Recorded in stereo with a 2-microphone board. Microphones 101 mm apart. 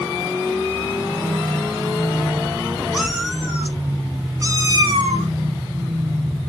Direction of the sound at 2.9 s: 5° right (ahead or behind).